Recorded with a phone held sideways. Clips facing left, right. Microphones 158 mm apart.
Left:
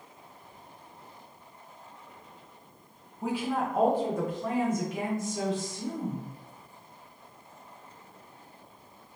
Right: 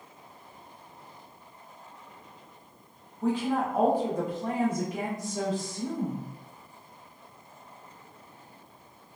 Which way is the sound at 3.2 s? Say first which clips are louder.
Right 3 dB; 15° left (ahead or behind).